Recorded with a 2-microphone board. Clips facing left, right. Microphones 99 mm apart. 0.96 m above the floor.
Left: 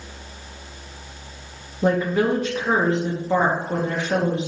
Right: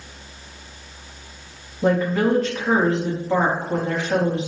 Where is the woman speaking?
15° left (ahead or behind), 1.0 m.